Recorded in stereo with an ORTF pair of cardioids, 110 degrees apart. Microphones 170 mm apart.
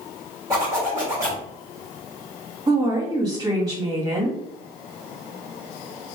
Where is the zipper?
15° right, 2.5 m.